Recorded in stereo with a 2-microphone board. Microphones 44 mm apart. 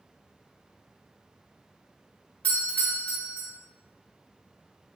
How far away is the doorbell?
About 1.3 m.